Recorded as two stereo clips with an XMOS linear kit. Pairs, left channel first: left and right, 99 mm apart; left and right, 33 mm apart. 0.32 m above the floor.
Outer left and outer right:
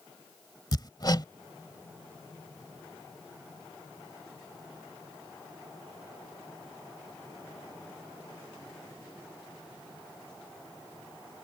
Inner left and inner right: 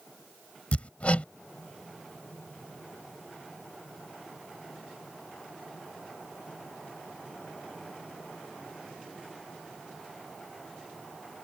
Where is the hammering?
45° left (ahead or behind).